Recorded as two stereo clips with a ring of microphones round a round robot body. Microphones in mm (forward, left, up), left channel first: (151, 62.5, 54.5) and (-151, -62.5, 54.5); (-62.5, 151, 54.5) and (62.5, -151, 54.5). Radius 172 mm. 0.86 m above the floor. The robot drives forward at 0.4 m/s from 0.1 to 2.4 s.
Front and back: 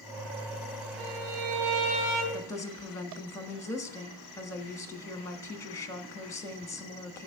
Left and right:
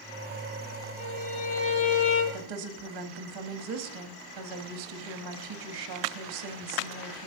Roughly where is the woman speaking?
Ahead right.